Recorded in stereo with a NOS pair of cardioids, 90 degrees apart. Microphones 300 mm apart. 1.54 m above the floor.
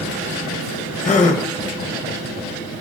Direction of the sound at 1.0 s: 25° left.